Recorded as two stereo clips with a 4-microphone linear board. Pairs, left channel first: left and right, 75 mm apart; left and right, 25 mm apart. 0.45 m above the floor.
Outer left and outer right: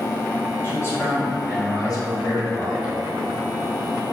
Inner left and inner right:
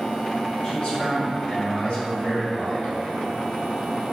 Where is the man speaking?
35° left (ahead or behind), 1.3 m; by 2.9 s 65° left (ahead or behind), 2 m.